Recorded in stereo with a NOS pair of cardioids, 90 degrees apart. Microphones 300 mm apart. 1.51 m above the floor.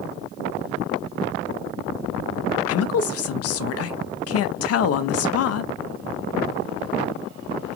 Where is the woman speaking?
55° left, 0.6 m.